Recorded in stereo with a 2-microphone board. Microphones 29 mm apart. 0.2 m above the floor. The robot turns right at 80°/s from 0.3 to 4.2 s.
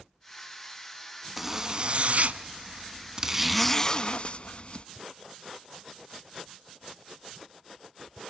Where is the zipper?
175° right, 0.5 m; by 4.9 s 55° left, 0.5 m.